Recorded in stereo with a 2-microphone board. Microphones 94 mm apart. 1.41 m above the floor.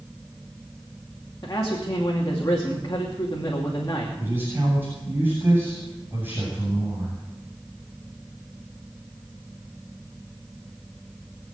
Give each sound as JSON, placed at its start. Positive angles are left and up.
{"t": 1.4, "sound": "a man speaking", "side_deg": 40, "distance_m": 2.5}
{"t": 4.2, "sound": "a man speaking", "side_deg": -20, "distance_m": 8.0}